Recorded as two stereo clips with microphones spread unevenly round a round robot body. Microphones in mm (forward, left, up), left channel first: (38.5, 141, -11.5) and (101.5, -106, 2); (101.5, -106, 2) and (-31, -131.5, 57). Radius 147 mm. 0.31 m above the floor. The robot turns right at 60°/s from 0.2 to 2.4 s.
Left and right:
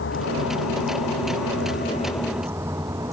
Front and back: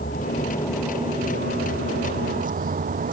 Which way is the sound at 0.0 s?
65° left.